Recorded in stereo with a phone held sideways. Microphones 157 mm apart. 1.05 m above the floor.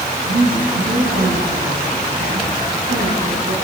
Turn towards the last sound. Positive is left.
turn(degrees=-85)